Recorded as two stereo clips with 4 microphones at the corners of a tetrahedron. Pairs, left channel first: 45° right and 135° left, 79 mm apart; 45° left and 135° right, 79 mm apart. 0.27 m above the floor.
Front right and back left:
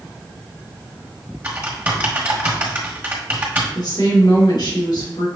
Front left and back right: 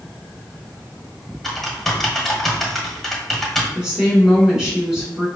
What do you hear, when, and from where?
1.4 s typing on a keyboard: 130° left, 1.4 m
3.8 s a woman speaking: 55° right, 2.5 m